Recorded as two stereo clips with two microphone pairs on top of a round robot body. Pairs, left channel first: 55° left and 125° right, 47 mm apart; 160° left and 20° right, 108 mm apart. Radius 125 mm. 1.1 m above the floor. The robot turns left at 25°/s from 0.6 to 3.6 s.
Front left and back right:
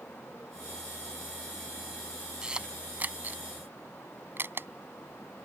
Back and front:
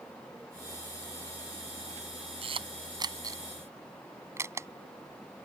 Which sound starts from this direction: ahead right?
A camera shutter, at 2.4 s.